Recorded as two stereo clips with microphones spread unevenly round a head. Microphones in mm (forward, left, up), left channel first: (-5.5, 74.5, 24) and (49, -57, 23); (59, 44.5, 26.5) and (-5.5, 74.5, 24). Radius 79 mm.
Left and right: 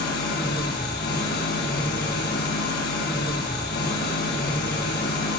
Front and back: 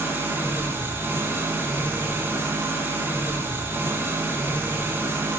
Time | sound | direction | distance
0.0 | an engine running | 100° left | 8 m